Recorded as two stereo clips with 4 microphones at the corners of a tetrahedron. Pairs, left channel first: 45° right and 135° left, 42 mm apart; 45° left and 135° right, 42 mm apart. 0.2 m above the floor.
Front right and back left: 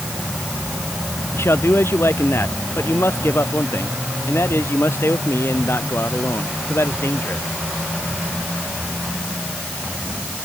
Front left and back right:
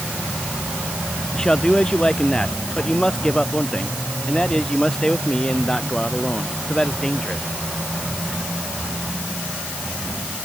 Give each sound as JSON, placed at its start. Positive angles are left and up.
{"t": 1.3, "sound": "a man speaking", "azimuth_deg": -25}